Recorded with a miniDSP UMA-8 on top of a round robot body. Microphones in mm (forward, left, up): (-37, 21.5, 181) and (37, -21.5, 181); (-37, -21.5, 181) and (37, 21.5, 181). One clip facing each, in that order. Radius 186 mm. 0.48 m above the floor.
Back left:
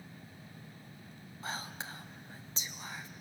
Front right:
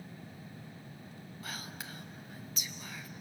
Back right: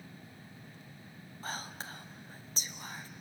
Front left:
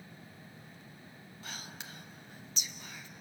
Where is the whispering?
170° right, 1.6 m.